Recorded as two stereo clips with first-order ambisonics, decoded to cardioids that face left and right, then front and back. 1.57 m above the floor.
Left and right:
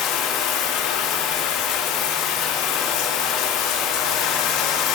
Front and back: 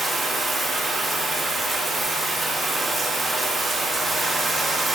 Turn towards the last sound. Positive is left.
turn(degrees=105)